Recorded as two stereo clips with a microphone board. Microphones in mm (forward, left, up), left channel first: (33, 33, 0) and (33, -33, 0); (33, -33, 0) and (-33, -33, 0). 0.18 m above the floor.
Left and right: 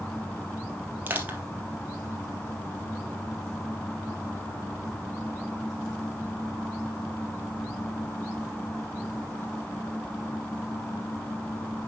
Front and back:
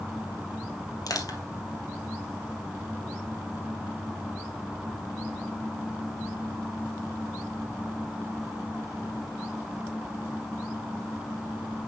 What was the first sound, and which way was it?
Crushing, 30° right.